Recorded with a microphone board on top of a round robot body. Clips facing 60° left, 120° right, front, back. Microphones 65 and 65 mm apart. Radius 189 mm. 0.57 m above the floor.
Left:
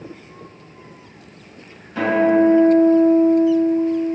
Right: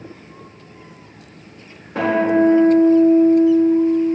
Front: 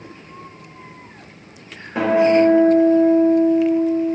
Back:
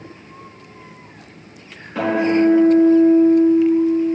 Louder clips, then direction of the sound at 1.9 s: Left 1 dB, front 3 dB; 70° right.